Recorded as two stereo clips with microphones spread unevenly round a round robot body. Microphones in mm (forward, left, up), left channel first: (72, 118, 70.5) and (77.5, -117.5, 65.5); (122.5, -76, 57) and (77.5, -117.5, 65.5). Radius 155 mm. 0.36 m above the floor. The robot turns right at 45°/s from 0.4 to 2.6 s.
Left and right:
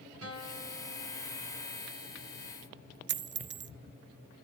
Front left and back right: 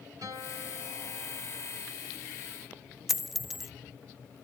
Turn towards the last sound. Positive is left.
turn(degrees=-45)